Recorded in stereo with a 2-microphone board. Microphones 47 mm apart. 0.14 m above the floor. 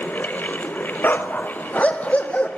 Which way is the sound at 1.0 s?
45° left (ahead or behind).